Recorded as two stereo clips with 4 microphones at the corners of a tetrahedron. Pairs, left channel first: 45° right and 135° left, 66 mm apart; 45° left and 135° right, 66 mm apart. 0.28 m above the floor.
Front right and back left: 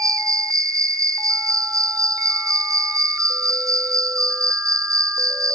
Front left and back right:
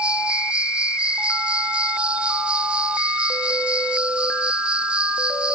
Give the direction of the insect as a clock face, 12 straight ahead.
7 o'clock.